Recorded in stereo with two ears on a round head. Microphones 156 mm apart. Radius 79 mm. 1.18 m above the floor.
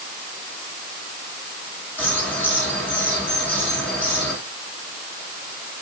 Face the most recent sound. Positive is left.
turn(degrees=10)  # may be behind; listen again after turning